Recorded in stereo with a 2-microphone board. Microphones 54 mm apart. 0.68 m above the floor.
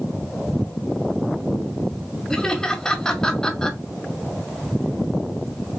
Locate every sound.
2.3 s laughter: 10° left (ahead or behind), 1.6 m